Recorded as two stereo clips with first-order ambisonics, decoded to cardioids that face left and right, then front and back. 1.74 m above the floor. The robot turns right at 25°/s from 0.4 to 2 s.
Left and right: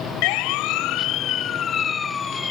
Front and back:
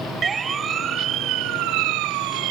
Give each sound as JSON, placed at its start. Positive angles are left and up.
{"t": 0.2, "sound": "a siren", "azimuth_deg": 110}